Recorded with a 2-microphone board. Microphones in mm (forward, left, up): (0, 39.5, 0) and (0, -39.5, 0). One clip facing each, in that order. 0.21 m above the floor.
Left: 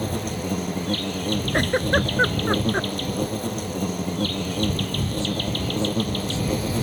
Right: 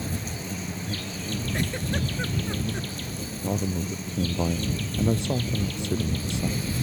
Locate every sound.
0.0 s an insect: 65° left (ahead or behind)
1.5 s a giggle: 65° left (ahead or behind)
3.4 s a man speaking: 75° right (ahead or behind)